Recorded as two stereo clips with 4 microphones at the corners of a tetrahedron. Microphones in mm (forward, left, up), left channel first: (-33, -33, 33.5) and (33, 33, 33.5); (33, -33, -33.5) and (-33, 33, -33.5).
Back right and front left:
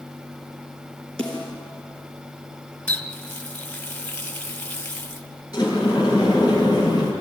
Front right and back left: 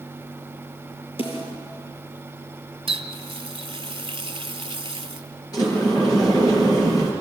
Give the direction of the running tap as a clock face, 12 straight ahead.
7 o'clock.